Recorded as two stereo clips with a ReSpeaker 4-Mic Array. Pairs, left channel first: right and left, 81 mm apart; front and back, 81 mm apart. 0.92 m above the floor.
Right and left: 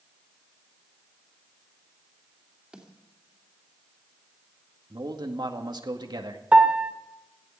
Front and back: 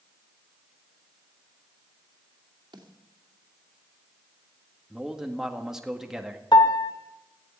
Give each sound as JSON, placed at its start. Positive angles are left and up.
{"t": 2.7, "sound": "a snare drum", "azimuth_deg": 170, "distance_m": 2.5}
{"t": 4.9, "sound": "a man speaking", "azimuth_deg": 100, "distance_m": 1.8}
{"t": 6.5, "sound": "a piano", "azimuth_deg": 15, "distance_m": 1.3}